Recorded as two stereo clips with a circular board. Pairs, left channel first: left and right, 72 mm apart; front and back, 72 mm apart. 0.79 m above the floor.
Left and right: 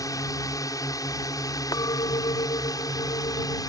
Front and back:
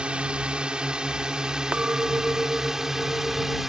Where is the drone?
110° left; by 3.7 s 95° left.